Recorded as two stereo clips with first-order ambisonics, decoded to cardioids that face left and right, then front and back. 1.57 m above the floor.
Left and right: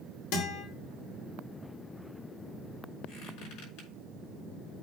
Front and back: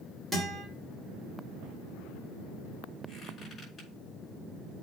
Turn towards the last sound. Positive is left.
turn(degrees=75)